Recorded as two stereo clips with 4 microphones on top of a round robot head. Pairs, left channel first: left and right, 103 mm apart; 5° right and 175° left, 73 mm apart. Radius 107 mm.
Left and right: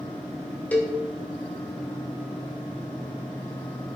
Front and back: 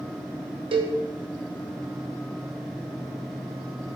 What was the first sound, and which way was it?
A cowbell, 170° left.